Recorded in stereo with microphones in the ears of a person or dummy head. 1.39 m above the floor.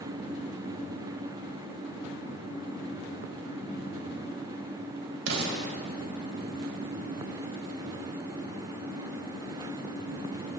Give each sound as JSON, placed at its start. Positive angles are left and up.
{"t": 5.3, "sound": "an explosion", "side_deg": -70, "distance_m": 3.5}